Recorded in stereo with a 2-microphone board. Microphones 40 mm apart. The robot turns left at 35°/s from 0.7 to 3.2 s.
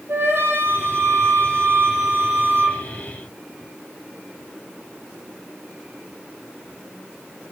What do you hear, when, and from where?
0.1 s a flute: 70° right, 4 m; by 2.8 s 145° right, 4 m